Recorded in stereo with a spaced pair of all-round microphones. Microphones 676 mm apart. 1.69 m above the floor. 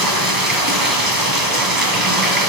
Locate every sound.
0.0 s running water: 30° right (ahead or behind), 2.5 m